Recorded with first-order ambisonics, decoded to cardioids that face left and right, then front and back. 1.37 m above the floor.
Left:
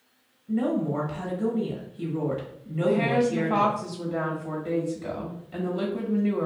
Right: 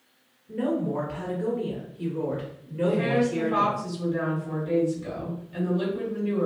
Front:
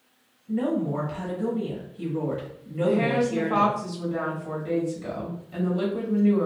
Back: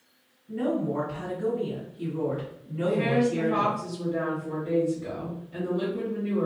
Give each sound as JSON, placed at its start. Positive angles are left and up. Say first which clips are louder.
{"t": 0.5, "sound": "a woman speaking", "louder": "left 1 dB, front 1 dB", "azimuth_deg": 65, "distance_m": 1.4}
{"t": 2.9, "sound": "a woman speaking", "louder": "left 1 dB, front 1 dB", "azimuth_deg": 70, "distance_m": 1.4}